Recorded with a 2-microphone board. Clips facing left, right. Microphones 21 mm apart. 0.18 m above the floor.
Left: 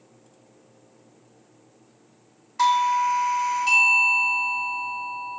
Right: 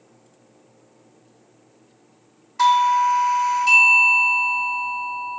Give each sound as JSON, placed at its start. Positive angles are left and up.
{"t": 2.6, "sound": "a doorbell", "side_deg": 0, "distance_m": 1.7}